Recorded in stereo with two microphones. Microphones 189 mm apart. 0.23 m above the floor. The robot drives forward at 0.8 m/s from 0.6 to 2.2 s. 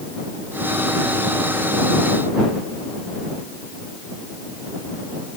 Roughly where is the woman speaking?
I don't hear a woman speaking.